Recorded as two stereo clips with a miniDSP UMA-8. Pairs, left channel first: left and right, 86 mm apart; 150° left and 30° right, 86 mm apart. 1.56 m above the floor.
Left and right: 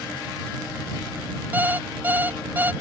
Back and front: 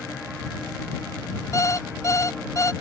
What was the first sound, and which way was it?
An alarm clock, 160° right.